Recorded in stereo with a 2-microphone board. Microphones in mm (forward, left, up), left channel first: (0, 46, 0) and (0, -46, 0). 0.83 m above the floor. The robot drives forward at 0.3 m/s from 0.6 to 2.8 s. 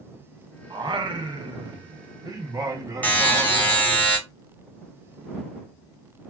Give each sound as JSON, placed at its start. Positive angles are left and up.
{"t": 0.7, "sound": "singing", "side_deg": -55, "distance_m": 0.6}
{"t": 3.0, "sound": "a buzzer", "side_deg": 15, "distance_m": 1.5}